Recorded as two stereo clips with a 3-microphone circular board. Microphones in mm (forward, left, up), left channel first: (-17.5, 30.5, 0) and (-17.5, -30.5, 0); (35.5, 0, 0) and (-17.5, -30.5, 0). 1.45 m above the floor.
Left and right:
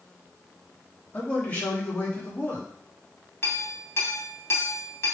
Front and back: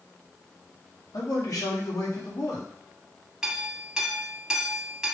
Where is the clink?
130° left, 2.5 m.